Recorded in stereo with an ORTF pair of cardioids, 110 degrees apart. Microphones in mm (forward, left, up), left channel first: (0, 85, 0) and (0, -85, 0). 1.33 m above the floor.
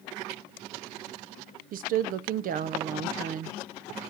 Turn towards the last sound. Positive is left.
turn(degrees=-60)